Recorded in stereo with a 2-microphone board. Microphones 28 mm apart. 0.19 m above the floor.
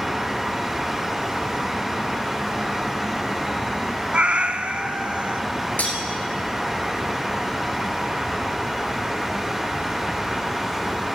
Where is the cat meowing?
50° right (ahead or behind), 0.5 m.